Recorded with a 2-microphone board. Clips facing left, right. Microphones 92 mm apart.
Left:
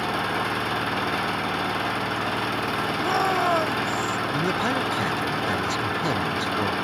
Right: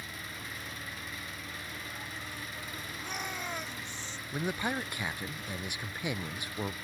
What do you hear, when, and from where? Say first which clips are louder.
0.0 s an engine running: left 19 dB; 70° left (ahead or behind)
3.0 s a shout: left 17 dB; 55° left (ahead or behind)
4.3 s a man speaking: left 6 dB; 25° left (ahead or behind)